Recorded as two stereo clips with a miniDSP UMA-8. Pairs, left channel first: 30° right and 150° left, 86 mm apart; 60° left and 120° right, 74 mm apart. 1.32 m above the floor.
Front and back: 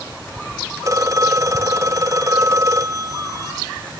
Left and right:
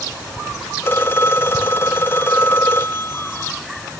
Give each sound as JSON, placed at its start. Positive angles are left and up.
{"t": 0.8, "sound": "a phone ringing", "azimuth_deg": 110, "distance_m": 0.8}